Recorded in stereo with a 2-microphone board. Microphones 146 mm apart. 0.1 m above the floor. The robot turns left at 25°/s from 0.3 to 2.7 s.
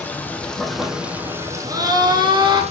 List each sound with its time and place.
0.0 s running water: 10° left, 1.5 m; by 2.7 s 50° right, 1.5 m
1.7 s a scream: 25° right (ahead or behind), 1.2 m; by 2.6 s 30° right (ahead or behind), 1.2 m